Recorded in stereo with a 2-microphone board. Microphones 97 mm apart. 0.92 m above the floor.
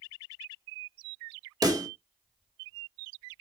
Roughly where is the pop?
Right.